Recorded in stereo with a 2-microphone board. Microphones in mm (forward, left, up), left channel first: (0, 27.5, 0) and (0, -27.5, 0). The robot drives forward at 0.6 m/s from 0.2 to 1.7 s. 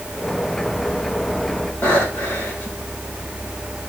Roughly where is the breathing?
Left.